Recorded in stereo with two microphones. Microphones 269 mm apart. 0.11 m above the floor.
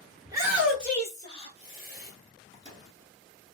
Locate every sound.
0.2 s a shout: 15° right (ahead or behind), 1.3 m; by 2.1 s 40° left (ahead or behind), 1.6 m
2.5 s a microwave: 10° left (ahead or behind), 1.4 m